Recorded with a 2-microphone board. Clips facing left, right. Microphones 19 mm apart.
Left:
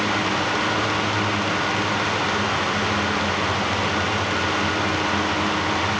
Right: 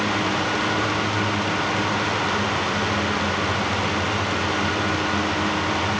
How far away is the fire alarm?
I don't hear a fire alarm.